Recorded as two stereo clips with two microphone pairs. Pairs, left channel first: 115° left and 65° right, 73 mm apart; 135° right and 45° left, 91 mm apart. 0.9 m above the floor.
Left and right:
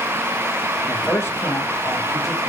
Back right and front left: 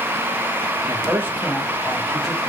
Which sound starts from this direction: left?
A man speaking, at 0.9 s.